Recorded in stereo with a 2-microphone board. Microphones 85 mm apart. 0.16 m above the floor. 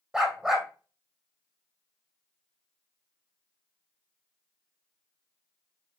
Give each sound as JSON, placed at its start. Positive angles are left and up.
{"t": 0.1, "sound": "a dog barking", "side_deg": -10, "distance_m": 2.5}